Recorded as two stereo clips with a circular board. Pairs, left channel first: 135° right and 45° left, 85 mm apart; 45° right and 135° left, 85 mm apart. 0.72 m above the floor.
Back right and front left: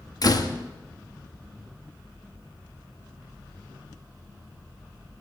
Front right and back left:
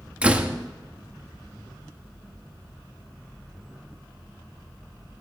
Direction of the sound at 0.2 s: 155° right.